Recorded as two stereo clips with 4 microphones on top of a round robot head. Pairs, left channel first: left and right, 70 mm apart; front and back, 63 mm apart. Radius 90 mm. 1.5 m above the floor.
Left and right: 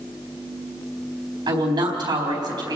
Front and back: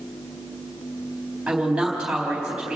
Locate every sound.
1.5 s a woman speaking: 100° right, 4 m